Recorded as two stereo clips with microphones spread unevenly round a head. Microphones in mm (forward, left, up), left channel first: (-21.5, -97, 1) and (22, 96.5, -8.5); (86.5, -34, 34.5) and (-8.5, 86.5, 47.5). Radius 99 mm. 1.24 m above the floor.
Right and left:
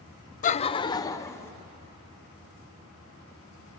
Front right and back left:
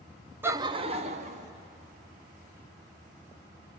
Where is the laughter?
155° right, 0.5 m; by 1.5 s straight behind, 1.5 m.